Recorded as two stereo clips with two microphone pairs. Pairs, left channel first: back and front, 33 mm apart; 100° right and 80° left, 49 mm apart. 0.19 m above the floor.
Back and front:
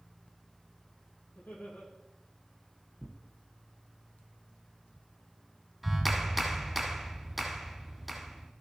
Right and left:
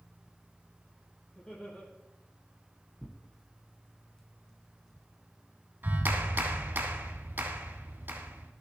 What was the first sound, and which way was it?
Laughter, 170° right.